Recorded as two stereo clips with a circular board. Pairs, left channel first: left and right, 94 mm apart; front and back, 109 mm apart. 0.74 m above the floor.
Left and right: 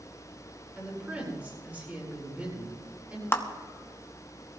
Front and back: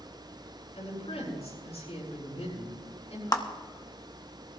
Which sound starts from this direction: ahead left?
A clap, at 3.3 s.